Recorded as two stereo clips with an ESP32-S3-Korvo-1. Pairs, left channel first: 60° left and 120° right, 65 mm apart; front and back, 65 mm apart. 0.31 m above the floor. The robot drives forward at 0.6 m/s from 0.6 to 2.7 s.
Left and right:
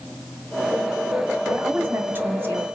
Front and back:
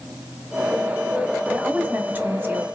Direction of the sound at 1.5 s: 130° right.